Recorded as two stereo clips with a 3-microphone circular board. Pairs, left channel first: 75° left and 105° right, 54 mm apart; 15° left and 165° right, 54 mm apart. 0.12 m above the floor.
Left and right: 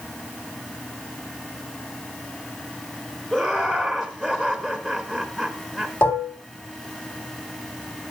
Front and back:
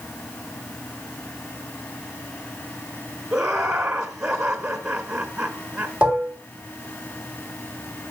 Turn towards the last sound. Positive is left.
turn(degrees=120)